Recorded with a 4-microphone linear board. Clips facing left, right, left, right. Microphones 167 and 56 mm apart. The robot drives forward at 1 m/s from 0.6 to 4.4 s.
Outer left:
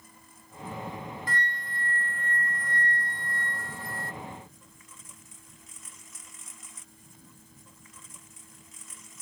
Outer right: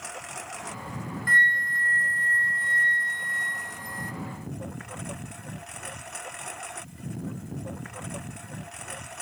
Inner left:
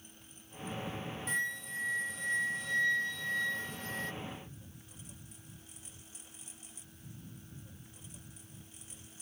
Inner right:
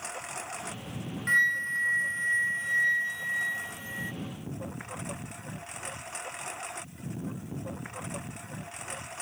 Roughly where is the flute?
Right.